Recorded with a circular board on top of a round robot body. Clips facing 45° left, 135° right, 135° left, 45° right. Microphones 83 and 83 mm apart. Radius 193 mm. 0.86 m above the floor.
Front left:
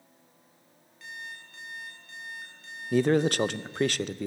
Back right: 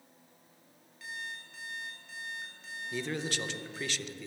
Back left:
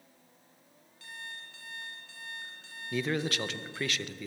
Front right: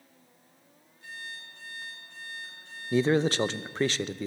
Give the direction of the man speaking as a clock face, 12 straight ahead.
12 o'clock.